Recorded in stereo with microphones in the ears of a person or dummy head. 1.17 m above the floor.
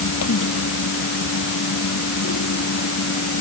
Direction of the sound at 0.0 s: 80° left.